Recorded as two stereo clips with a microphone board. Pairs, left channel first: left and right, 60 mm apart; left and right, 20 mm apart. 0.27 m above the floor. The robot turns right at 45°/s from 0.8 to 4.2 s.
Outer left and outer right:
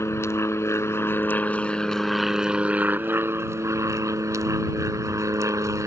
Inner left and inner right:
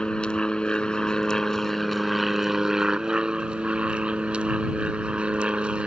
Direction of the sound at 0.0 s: 120° left.